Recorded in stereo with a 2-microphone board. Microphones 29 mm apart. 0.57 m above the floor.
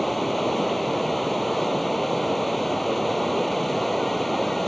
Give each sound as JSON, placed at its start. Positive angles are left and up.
{"t": 0.0, "sound": "running water", "side_deg": 5}